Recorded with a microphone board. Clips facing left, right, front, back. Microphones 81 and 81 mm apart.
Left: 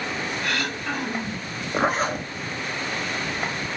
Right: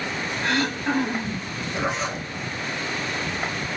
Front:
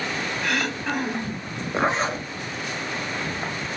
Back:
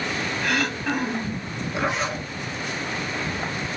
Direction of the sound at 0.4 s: 95° right.